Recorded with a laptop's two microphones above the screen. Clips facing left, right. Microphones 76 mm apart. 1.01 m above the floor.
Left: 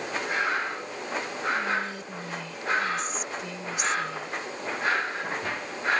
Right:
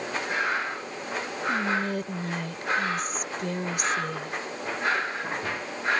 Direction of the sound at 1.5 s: 55° right (ahead or behind).